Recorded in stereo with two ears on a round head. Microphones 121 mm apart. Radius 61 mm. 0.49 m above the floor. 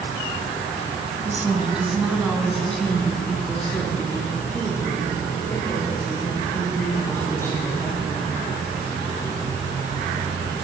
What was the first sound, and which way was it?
A woman speaking, 15° right (ahead or behind).